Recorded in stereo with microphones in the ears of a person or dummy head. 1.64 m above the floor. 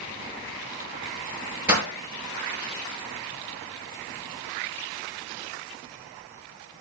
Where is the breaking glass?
10° right (ahead or behind), 5.5 m.